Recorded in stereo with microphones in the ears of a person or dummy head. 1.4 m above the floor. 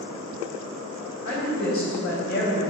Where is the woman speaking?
50° left (ahead or behind), 1.6 m.